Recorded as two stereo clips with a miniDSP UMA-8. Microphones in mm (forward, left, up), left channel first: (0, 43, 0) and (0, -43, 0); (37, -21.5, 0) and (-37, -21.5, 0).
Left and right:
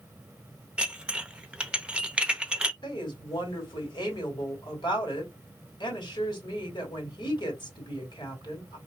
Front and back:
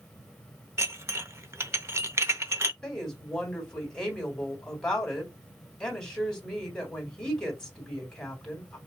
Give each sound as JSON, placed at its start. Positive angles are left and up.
{"t": 0.8, "sound": "dishes clattering", "azimuth_deg": -160, "distance_m": 0.6}
{"t": 2.8, "sound": "a woman speaking", "azimuth_deg": 80, "distance_m": 3.0}